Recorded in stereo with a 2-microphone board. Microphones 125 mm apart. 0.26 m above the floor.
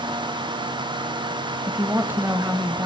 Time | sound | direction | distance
1.7 | a woman speaking | 20° right (ahead or behind) | 1.0 m